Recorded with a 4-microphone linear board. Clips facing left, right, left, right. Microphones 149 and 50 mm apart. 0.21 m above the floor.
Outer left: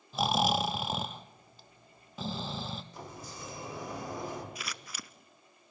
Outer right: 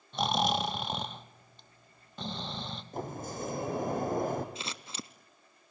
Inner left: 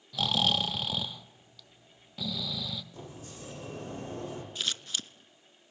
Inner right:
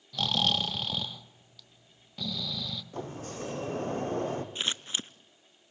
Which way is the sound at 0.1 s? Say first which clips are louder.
Outer left 1 dB, even; 5° left (ahead or behind).